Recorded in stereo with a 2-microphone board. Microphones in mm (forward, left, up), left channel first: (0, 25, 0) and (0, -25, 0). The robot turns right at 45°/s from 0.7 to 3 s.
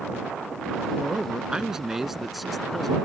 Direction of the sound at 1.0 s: 20° right (ahead or behind).